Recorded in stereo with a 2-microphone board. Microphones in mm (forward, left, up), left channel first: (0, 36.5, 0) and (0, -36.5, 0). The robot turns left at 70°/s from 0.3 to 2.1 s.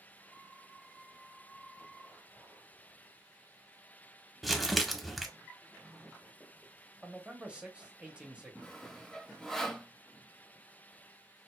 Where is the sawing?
5° left (ahead or behind), 0.8 m.